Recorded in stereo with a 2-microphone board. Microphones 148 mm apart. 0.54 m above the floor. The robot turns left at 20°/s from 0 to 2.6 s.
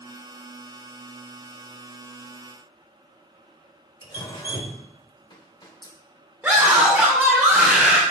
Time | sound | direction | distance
4.0 | dripping | 30° left (ahead or behind) | 1.1 m
6.4 | a scream | 15° right (ahead or behind) | 1.5 m